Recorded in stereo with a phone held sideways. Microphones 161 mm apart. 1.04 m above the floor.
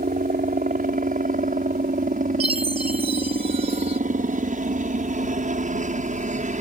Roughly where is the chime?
Right.